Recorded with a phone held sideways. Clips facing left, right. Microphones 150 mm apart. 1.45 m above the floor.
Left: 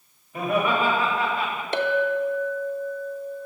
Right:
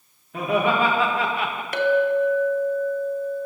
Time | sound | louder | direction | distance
0.3 | laughter | right 2 dB | 80° right | 1.7 m
1.7 | a clink | right 4 dB | 25° left (ahead or behind) | 0.5 m